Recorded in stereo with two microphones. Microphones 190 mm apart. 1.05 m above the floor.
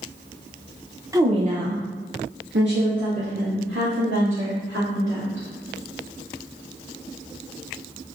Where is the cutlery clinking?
I don't hear cutlery clinking.